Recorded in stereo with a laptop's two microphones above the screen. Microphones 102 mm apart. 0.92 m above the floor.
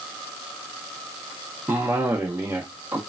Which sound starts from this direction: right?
A cough, at 1.7 s.